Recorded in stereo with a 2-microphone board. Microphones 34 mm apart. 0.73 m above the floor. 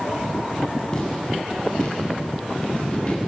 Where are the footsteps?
25° left (ahead or behind), 8.5 m; by 3.2 s 35° left (ahead or behind), 6.5 m.